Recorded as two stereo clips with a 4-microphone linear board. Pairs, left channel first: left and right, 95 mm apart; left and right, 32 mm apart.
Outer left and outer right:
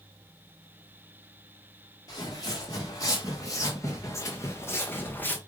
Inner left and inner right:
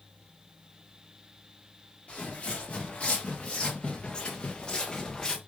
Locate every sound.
2.1 s footsteps: 45° left (ahead or behind), 3.5 m; by 5.4 s 20° left (ahead or behind), 1.7 m